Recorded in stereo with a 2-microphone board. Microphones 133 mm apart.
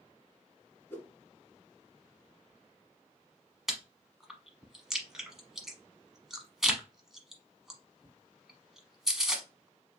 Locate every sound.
0.9 s a whoosh: 15° left (ahead or behind), 1.3 m
3.7 s chewing: 5° right (ahead or behind), 1.0 m